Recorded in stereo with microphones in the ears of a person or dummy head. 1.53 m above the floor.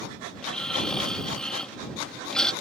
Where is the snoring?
10° left (ahead or behind).